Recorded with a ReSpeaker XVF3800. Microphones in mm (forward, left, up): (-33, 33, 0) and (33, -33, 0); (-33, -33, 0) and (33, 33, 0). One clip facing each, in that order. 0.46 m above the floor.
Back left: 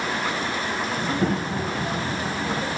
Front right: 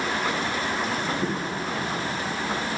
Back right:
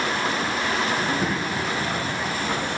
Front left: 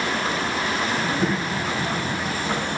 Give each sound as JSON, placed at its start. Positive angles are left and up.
{"t": 1.0, "sound": "a child speaking", "azimuth_deg": 135, "distance_m": 1.3}